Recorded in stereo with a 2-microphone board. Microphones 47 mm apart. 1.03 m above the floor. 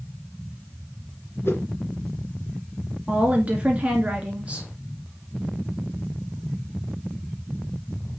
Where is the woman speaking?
30° right (ahead or behind), 2 m.